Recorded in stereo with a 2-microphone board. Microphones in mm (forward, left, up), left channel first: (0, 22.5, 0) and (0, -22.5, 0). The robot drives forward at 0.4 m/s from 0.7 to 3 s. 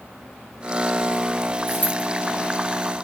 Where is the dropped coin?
55° left (ahead or behind), 1.2 m; by 2.0 s 60° left (ahead or behind), 1.2 m.